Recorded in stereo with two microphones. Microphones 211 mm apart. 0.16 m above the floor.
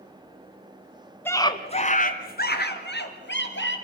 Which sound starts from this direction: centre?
A scream, at 1.2 s.